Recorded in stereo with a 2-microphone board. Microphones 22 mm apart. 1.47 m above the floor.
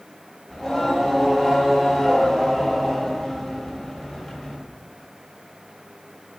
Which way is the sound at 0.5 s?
30° left (ahead or behind).